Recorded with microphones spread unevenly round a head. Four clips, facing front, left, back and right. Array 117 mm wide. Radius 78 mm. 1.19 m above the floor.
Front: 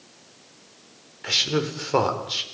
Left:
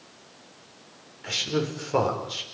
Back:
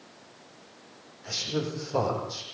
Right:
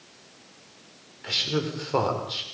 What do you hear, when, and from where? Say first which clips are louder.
1.2 s a man speaking: left 1 dB, front 5 dB; 15° right, 4.5 m